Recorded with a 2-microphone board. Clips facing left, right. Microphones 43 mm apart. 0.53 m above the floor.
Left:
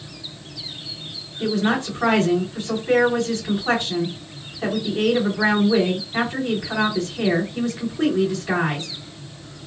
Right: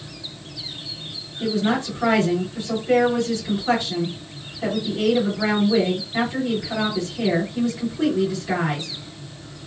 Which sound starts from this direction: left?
A woman speaking, at 1.4 s.